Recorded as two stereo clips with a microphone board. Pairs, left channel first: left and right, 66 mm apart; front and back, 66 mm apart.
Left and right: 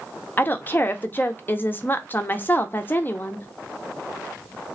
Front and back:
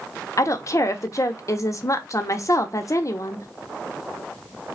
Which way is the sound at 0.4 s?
30° left.